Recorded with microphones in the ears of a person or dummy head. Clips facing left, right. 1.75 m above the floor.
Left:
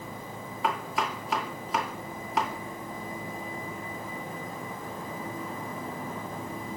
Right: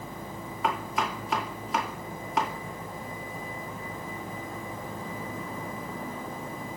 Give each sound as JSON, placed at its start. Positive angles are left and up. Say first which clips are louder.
{"t": 0.6, "sound": "chopping", "louder": "even", "side_deg": 0, "distance_m": 2.5}